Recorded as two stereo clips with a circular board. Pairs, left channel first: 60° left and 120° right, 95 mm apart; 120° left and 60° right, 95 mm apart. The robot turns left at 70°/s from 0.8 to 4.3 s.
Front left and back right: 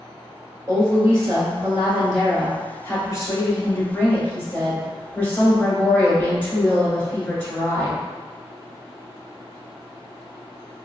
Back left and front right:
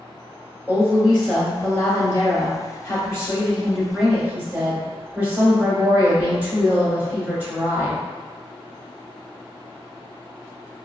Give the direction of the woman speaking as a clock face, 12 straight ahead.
4 o'clock.